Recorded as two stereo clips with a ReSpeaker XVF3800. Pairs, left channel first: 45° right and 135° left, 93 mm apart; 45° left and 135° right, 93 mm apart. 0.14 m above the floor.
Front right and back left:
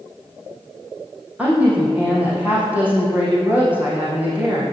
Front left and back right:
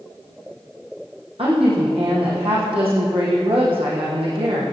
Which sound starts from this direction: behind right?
A woman speaking, at 1.4 s.